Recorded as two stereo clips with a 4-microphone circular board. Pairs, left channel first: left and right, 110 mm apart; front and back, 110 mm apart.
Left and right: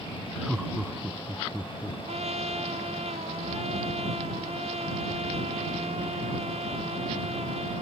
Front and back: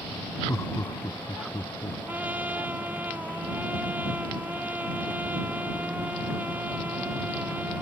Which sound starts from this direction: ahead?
Laughter, at 0.5 s.